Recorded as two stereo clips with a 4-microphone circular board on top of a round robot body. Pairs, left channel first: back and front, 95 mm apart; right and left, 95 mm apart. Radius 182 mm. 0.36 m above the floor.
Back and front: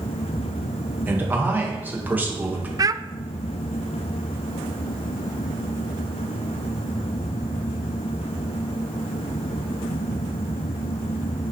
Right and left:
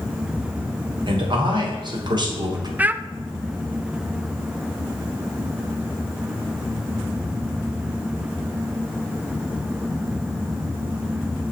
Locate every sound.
1.1 s a man speaking: 70° left, 2.5 m
2.8 s a child speaking: 25° left, 0.6 m